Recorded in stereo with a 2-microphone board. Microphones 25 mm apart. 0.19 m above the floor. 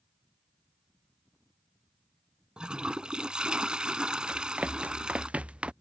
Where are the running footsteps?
70° right (ahead or behind); by 5.7 s 45° right (ahead or behind).